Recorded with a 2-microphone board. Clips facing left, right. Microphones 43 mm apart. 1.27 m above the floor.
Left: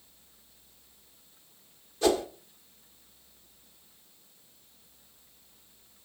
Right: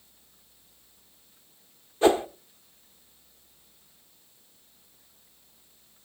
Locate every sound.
2.0 s a whoosh: 30° right (ahead or behind), 1.0 m